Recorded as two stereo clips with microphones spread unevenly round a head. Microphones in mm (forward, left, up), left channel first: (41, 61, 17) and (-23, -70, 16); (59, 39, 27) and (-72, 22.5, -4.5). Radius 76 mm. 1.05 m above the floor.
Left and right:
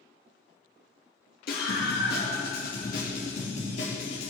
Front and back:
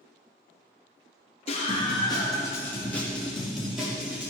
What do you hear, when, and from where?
1.5 s a scream: 55° left, 1.9 m; by 4.3 s 110° left, 3.5 m